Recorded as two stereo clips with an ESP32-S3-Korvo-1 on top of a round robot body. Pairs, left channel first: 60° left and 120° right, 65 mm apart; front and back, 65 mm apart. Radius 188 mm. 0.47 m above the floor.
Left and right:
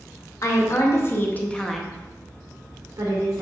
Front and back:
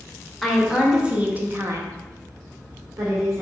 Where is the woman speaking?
90° left, 2 m; by 3.4 s 145° right, 2 m.